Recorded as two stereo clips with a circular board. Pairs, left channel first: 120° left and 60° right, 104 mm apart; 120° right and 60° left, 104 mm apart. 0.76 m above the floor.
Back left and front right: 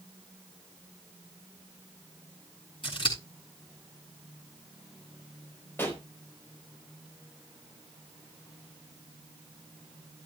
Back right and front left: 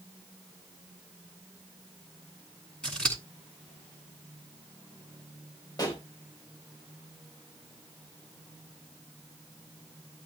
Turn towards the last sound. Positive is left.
turn(degrees=-170)